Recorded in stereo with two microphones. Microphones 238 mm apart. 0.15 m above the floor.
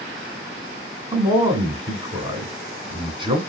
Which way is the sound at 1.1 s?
20° right (ahead or behind).